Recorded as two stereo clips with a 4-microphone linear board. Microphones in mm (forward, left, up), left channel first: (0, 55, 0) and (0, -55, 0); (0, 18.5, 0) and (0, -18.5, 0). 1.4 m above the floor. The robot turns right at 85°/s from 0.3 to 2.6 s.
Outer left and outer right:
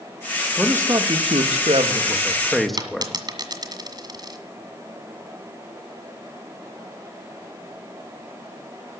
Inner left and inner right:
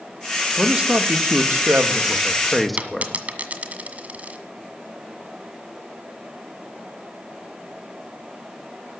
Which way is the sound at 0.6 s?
170° right.